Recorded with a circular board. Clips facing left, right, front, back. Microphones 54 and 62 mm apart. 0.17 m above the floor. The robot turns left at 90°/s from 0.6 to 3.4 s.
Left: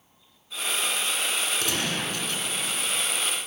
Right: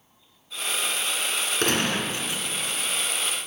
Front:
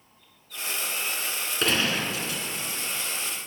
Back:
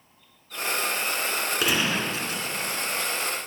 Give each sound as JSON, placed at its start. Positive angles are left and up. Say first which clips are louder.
{"t": 1.6, "sound": "a gunshot", "louder": "right 4 dB, front 1 dB", "azimuth_deg": -95, "distance_m": 2.0}